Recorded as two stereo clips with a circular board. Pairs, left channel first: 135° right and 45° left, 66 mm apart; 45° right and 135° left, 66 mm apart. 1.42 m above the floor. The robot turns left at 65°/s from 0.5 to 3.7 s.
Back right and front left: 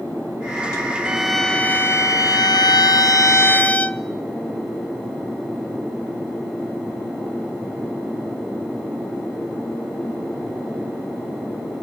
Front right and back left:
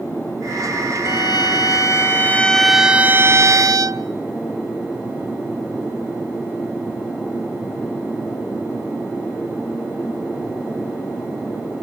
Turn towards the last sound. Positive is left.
turn(degrees=160)